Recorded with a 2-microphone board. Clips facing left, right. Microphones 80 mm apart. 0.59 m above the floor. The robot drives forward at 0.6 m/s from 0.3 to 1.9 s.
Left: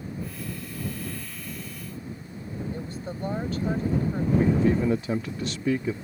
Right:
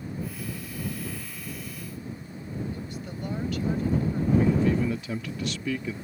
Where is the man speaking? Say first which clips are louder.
Left 3 dB; 35° left (ahead or behind).